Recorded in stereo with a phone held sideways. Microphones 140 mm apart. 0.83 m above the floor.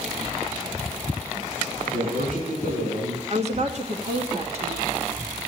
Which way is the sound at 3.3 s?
50° right (ahead or behind).